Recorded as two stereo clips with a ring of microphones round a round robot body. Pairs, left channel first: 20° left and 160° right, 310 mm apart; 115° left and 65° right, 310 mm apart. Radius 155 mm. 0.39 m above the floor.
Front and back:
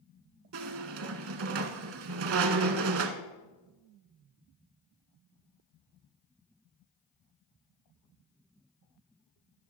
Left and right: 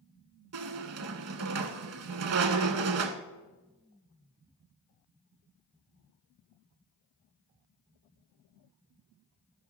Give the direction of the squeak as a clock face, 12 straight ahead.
4 o'clock.